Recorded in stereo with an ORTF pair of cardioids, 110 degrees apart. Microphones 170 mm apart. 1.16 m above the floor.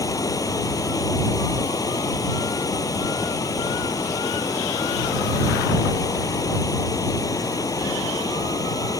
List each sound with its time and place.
0.0 s running water: 20° left